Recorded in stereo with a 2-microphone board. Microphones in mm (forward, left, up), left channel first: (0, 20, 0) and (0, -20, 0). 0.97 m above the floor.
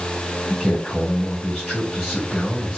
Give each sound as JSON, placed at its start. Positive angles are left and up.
{"t": 0.5, "sound": "a man speaking", "side_deg": 15, "distance_m": 2.5}